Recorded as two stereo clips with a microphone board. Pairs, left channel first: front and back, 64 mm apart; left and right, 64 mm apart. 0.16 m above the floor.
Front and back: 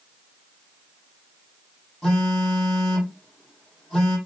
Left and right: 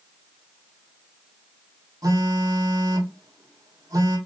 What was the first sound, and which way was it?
A phone buzzing, 85° right.